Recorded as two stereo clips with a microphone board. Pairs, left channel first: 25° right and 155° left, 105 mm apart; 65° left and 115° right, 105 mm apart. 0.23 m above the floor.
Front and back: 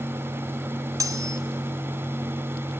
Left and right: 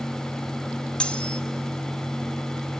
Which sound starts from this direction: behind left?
Cutlery clinking, at 1.0 s.